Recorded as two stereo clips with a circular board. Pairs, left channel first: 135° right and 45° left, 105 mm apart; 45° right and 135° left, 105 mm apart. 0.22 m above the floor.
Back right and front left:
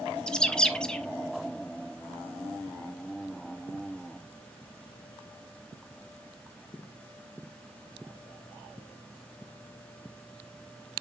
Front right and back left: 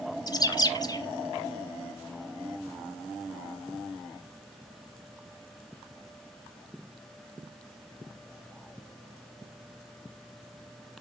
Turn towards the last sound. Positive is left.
turn(degrees=-55)